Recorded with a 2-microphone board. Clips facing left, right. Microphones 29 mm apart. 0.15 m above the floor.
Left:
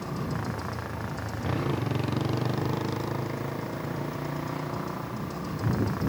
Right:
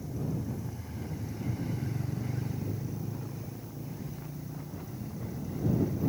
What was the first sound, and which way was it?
A motorcycle, 85° left.